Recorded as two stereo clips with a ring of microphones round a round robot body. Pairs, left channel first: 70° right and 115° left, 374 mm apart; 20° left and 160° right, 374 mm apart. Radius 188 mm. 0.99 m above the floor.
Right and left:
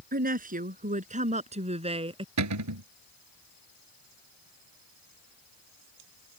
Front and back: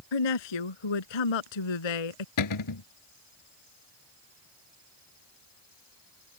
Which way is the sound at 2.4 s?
65° left.